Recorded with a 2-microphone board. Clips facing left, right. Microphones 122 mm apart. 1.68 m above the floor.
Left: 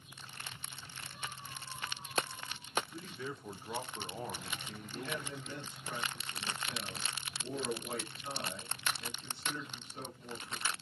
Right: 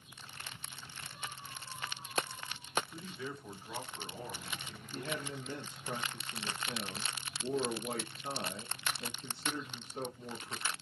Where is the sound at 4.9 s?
40° right (ahead or behind), 1.0 m.